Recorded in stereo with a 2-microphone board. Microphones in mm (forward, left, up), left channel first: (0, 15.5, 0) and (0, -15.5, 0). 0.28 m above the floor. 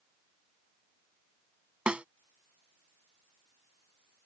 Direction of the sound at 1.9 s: 40° right (ahead or behind).